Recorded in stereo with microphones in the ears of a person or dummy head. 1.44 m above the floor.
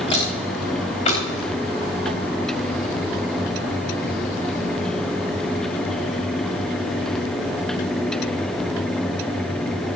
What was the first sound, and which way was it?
Footsteps, 35° left (ahead or behind).